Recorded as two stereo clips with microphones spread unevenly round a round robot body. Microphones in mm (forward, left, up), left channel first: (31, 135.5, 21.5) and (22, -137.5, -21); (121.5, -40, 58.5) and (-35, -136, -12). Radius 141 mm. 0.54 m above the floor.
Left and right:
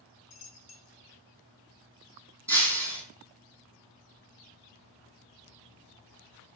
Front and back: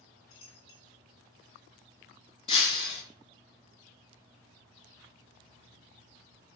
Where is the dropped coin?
55° left, 0.6 m.